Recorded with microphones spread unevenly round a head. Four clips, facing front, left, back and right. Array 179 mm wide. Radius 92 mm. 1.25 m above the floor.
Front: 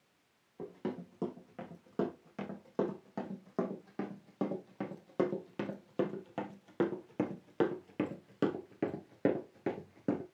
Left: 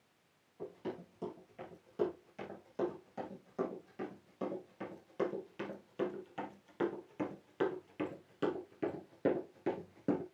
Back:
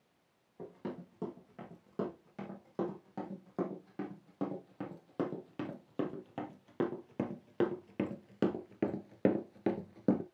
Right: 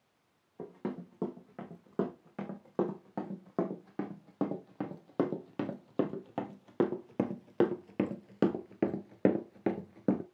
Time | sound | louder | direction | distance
0.6 | running footsteps | right 4 dB, front 3 dB | 65° right | 5 m